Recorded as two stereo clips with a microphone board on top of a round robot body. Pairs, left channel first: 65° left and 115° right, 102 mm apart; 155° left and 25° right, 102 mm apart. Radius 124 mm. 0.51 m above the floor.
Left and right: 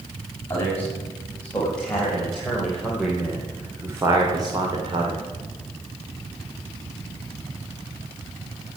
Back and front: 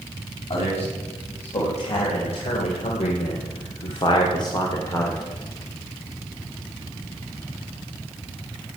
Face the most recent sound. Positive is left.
turn(degrees=-135)